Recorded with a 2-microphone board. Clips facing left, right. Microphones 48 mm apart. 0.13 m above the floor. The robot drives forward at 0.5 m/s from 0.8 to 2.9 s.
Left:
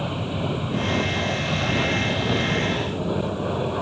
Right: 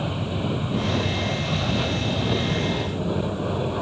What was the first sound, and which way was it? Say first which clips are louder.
An aircraft: even; 10° left (ahead or behind).